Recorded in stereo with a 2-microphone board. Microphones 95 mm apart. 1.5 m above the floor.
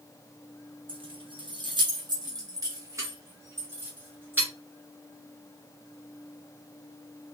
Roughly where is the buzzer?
I don't hear a buzzer.